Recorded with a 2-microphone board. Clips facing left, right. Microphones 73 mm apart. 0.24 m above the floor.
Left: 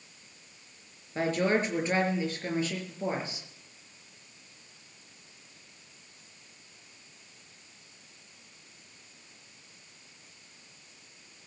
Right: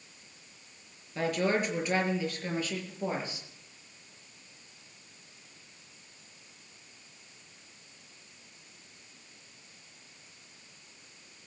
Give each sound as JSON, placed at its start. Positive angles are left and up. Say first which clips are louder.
{"t": 1.1, "sound": "a woman speaking", "louder": "left 2 dB", "side_deg": 30, "distance_m": 5.0}